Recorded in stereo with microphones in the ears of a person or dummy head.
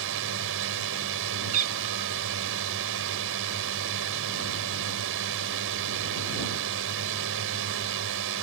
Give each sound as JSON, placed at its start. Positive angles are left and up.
{"t": 0.0, "sound": "a drone", "side_deg": -70}
{"t": 1.5, "sound": "a cat meowing", "side_deg": -40}